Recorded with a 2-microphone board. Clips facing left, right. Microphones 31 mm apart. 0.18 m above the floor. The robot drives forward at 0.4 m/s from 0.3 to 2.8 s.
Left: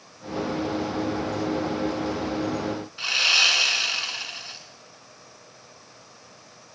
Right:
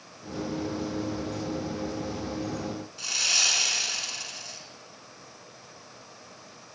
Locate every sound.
3.0 s sawing: 40° left (ahead or behind), 1.6 m